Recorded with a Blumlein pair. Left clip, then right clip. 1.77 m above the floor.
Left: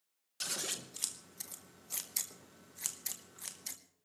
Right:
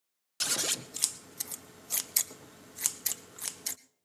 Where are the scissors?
70° right, 0.7 m.